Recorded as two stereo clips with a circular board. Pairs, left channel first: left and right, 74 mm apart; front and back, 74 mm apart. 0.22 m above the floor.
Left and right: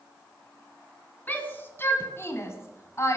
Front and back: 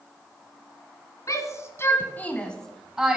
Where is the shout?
30° left, 2.5 m; by 3.2 s 110° left, 1.8 m.